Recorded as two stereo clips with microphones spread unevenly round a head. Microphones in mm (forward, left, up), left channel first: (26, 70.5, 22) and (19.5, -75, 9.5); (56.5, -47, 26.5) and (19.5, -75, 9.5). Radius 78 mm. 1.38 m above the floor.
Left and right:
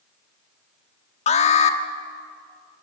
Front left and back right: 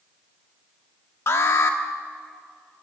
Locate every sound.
1.3 s an alarm: 45° left, 1.7 m